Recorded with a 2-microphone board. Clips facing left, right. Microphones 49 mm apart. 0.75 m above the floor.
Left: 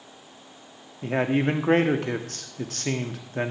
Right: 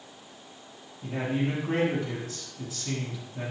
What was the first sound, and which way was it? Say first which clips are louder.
A man speaking: left 6 dB; 60° left (ahead or behind).